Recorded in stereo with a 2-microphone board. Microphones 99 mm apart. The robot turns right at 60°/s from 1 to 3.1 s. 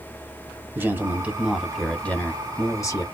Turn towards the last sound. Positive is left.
turn(degrees=85)